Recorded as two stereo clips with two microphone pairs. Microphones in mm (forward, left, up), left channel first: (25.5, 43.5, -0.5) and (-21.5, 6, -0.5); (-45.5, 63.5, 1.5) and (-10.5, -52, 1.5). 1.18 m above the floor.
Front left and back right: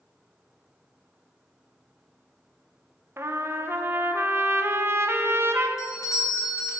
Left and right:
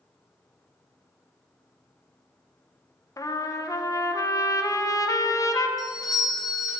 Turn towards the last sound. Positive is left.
turn(degrees=55)